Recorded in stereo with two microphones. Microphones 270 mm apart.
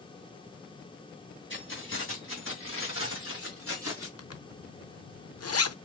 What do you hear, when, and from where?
1.5 s keys jangling: 45° left (ahead or behind), 2.5 m; by 4.1 s 55° left (ahead or behind), 3.5 m
4.2 s a zipper: 65° left (ahead or behind), 0.6 m